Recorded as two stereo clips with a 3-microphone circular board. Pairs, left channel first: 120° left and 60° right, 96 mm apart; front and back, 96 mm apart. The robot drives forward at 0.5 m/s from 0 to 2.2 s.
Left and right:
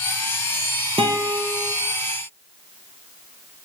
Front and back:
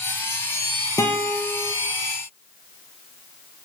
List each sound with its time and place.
1.0 s a guitar: 60° right, 0.7 m; by 1.8 s 95° right, 0.6 m